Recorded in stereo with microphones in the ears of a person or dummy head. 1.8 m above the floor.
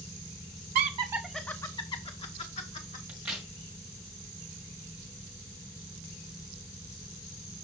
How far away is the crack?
About 1.9 m.